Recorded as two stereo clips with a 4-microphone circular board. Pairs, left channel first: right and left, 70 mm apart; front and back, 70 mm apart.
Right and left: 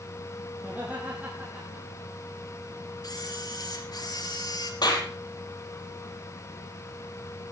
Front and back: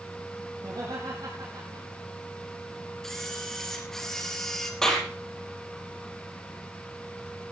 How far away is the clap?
About 5 m.